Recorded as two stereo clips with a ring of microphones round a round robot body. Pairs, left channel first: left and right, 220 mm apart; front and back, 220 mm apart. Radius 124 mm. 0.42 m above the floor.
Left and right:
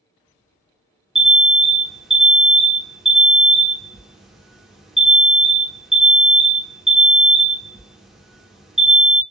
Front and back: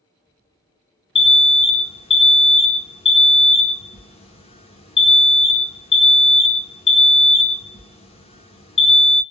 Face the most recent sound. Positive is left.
turn(degrees=-5)